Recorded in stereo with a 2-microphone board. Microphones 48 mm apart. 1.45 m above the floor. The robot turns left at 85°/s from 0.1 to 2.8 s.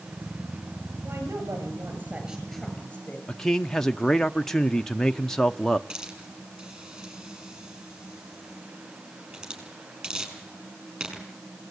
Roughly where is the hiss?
Right.